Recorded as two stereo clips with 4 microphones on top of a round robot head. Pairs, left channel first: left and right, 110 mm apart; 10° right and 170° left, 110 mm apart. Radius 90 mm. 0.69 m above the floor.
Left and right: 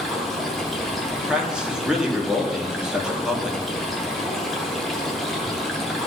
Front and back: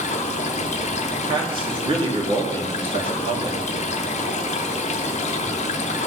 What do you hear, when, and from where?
0.0 s running water: straight ahead, 0.7 m
1.2 s a man speaking: 170° right, 1.6 m